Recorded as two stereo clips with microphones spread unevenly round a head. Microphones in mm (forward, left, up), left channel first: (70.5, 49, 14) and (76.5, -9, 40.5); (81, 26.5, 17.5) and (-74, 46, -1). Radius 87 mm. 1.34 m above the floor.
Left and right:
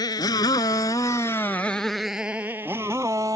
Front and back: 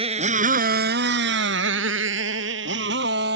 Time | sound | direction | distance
0.0 | a motorcycle | 120° left | ?